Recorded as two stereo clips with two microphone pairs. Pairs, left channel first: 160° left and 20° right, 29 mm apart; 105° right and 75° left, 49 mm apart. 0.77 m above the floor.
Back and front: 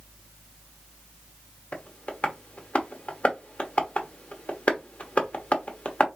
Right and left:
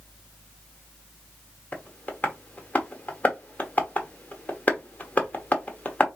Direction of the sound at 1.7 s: 165° right.